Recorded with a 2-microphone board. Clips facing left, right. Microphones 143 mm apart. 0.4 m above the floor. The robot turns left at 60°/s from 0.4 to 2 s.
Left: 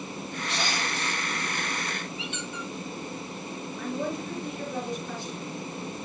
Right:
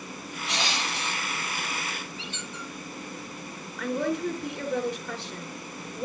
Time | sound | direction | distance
0.5 | crushing | 80° right | 9.5 m
2.2 | a squeak | 30° right (ahead or behind) | 8.5 m
3.8 | a woman speaking | 65° right (ahead or behind) | 4.5 m